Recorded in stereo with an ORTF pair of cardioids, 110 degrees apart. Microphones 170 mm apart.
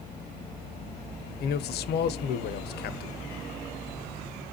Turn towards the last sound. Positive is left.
turn(degrees=65)